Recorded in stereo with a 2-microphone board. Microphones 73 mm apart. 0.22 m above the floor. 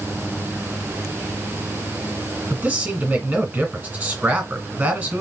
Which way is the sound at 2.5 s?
20° right (ahead or behind).